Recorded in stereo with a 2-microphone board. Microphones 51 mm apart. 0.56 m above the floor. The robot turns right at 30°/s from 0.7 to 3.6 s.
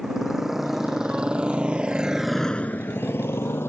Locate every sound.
0.0 s a motorcycle: 10° right (ahead or behind); by 3.7 s 50° left (ahead or behind)